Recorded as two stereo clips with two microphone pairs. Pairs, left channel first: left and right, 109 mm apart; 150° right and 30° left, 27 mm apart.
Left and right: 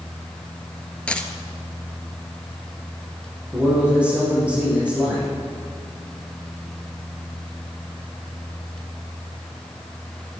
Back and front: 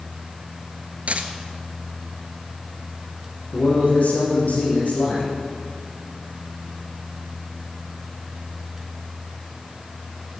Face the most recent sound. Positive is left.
turn(degrees=-170)